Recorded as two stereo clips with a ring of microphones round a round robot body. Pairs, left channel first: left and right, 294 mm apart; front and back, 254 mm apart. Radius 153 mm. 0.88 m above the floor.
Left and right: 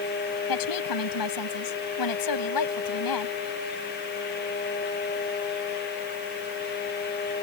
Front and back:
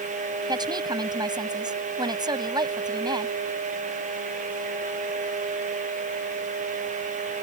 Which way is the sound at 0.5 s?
105° left.